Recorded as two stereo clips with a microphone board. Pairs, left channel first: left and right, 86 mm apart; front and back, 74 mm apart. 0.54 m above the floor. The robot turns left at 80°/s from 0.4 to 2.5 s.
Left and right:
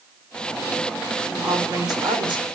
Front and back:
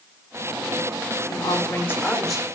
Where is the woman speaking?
10° right, 1.4 m; by 2.5 s 100° right, 1.4 m.